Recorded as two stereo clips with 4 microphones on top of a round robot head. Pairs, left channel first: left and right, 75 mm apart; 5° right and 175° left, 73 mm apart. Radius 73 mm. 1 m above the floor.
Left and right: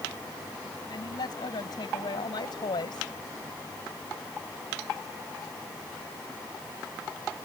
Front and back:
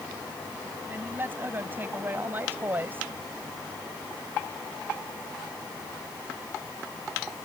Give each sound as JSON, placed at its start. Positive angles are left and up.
{"t": 0.9, "sound": "a man speaking", "azimuth_deg": 110}